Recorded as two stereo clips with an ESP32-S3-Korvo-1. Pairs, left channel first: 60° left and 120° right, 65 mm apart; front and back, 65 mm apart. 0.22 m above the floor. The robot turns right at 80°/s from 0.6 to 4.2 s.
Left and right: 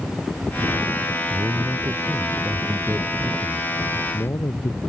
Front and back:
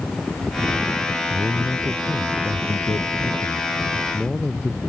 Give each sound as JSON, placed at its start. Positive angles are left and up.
{"t": 1.3, "sound": "a man speaking", "azimuth_deg": -145}